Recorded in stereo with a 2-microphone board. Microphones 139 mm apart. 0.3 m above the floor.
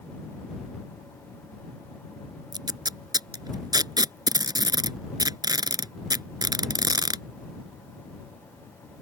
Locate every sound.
2.5 s tape being pulled: 30° right (ahead or behind)